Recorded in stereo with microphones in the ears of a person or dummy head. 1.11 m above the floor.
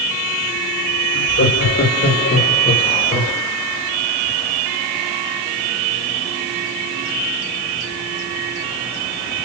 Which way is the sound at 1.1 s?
60° left (ahead or behind).